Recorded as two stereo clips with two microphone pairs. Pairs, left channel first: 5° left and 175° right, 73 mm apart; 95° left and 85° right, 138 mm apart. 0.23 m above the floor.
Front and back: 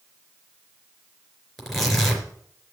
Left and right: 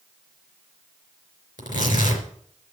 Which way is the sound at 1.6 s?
90° left.